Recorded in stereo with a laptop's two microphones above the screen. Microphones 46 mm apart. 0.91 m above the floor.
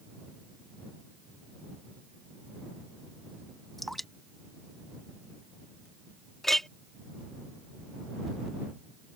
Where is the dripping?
5° left (ahead or behind).